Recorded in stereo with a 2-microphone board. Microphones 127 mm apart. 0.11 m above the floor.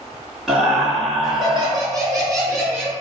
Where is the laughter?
Centre (ahead or behind), 1.7 m; by 2.9 s 5° left (ahead or behind), 3 m.